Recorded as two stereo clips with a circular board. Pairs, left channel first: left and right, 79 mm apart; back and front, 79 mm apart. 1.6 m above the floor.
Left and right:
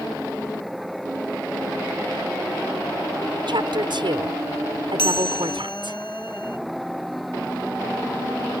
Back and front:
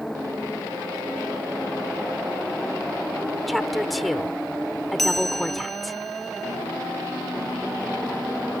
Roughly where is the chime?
Left.